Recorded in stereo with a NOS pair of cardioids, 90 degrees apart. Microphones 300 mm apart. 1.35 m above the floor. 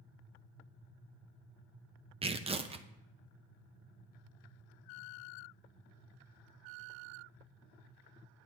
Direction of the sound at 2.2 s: 20° right.